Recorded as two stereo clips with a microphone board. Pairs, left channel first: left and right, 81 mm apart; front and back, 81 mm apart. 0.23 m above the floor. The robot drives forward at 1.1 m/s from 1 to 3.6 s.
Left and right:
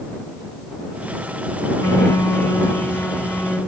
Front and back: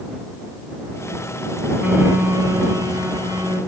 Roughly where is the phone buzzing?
Behind left.